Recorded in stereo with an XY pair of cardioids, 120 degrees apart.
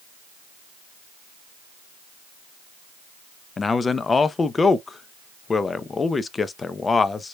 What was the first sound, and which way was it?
A man speaking, 25° left.